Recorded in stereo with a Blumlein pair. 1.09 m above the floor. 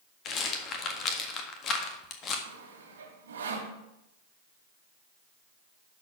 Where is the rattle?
30° left, 1.6 m.